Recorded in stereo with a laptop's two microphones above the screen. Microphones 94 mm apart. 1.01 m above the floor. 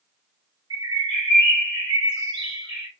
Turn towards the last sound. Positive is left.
turn(degrees=-50)  # may be behind; listen again after turning